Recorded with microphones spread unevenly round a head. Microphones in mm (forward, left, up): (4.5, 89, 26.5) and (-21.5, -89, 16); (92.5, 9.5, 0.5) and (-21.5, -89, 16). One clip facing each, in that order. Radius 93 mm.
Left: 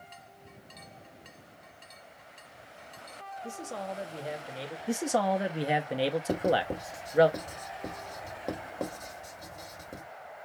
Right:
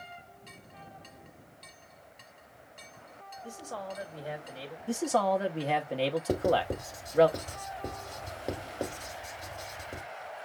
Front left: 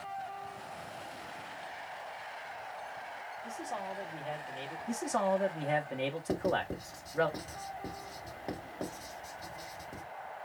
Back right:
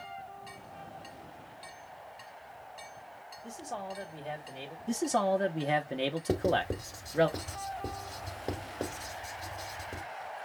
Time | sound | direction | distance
3.4 | a man speaking | 145° left | 1.3 m
4.9 | a man speaking | 155° left | 0.7 m
6.3 | writing | 170° left | 1.3 m